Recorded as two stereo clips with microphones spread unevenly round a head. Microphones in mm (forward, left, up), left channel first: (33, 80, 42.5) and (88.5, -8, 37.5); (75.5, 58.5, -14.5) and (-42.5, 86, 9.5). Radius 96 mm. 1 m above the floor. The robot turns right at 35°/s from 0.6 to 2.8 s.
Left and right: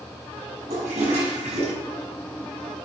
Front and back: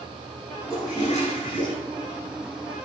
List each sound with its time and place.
0.7 s a toilet flushing: 85° right, 6 m; by 1.7 s 50° right, 6 m